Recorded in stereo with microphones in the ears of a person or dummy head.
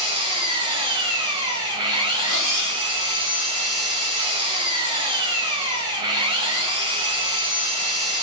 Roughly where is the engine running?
Right.